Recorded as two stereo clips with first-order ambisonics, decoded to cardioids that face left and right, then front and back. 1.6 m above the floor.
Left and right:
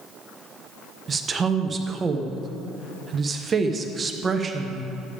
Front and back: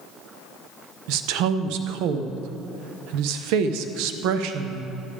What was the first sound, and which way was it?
A woman speaking, 160° right.